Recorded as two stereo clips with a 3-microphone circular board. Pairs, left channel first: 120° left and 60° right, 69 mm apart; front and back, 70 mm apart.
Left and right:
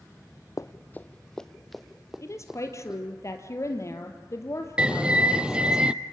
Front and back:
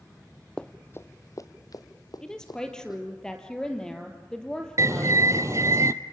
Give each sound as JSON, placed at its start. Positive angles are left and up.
{"t": 0.6, "sound": "running footsteps", "azimuth_deg": 80, "distance_m": 0.7}
{"t": 2.2, "sound": "a woman speaking", "azimuth_deg": 80, "distance_m": 3.0}
{"t": 4.8, "sound": "a bird", "azimuth_deg": -135, "distance_m": 0.6}